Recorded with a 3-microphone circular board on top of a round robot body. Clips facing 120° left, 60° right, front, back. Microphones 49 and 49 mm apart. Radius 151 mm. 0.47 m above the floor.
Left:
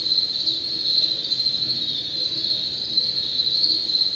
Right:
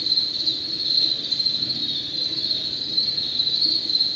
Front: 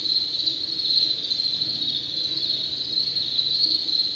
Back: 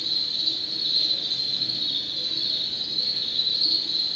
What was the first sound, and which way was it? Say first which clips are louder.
An insect: left 1 dB, front 2 dB; 110° right.